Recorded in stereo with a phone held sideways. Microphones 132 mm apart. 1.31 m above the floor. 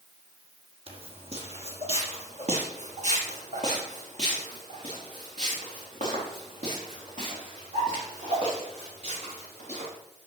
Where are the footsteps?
45° right (ahead or behind), 2.0 m; by 9.9 s 65° right (ahead or behind), 7.5 m.